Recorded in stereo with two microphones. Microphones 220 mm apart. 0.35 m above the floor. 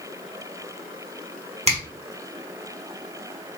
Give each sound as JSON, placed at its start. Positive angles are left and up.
{"t": 1.7, "sound": "a finger snap", "side_deg": -30, "distance_m": 1.1}